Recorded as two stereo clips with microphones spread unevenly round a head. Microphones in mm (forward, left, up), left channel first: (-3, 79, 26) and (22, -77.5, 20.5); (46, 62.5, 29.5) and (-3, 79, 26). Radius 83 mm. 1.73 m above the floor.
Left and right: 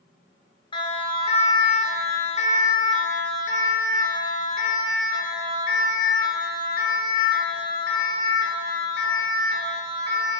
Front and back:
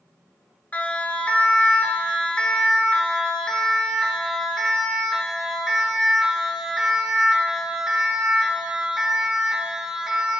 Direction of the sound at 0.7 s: 40° left.